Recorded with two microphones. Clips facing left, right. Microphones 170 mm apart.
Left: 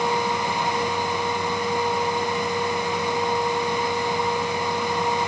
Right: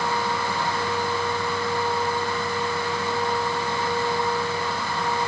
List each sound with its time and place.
Only background noise.